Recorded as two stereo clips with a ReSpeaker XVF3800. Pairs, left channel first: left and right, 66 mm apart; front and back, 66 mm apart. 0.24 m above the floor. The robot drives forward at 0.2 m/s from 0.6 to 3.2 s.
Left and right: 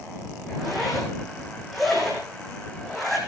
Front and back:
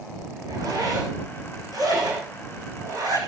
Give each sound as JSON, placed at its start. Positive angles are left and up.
{"t": 0.5, "sound": "a zipper", "azimuth_deg": 180, "distance_m": 8.0}